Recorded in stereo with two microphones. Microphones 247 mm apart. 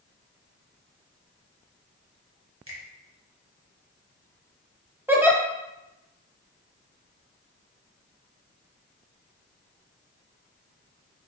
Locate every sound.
2.7 s a finger snap: 60° right (ahead or behind), 1.2 m
5.1 s a giggle: 10° right (ahead or behind), 0.8 m